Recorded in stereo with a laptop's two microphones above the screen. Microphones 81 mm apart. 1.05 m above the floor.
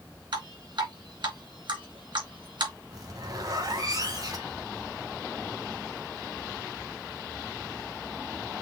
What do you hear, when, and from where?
0.3 s dripping: 70° right (ahead or behind), 2 m
2.9 s a zipper: 55° right (ahead or behind), 2.5 m